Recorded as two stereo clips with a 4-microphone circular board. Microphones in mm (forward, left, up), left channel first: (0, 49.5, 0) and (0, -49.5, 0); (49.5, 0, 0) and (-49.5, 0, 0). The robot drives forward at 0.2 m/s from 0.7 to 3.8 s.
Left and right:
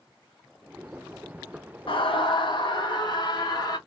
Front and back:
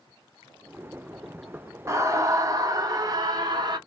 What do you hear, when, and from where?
1.9 s a scream: 120° left, 0.9 m; by 3.8 s 135° left, 1.2 m